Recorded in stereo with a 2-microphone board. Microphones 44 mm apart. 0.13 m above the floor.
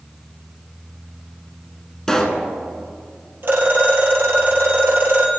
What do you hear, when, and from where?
2.1 s a pop: 10° left (ahead or behind), 1.2 m
3.4 s a phone ringing: 50° right (ahead or behind), 2 m